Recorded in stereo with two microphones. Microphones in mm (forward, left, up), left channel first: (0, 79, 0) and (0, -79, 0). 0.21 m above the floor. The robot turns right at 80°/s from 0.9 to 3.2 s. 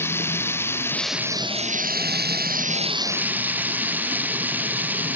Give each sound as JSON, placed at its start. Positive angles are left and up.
{"t": 0.0, "sound": "running water", "azimuth_deg": 165}